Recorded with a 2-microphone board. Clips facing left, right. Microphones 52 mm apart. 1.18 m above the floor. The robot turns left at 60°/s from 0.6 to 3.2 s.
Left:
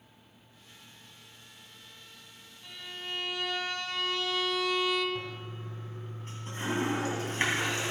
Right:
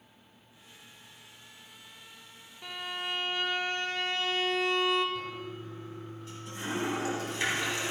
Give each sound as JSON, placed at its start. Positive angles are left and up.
{"t": 2.6, "sound": "a violin", "azimuth_deg": -110, "distance_m": 0.8}
{"t": 5.2, "sound": "a toilet flushing", "side_deg": 40, "distance_m": 3.0}